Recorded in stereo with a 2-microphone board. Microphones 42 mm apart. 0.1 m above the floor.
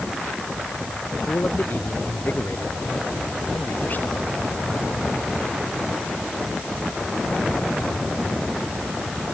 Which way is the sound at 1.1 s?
45° left (ahead or behind).